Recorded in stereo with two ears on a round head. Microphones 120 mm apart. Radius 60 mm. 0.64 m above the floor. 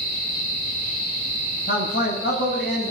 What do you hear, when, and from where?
1.7 s a man speaking: 75° left (ahead or behind), 4.5 m; by 2.9 s 65° left (ahead or behind), 4.5 m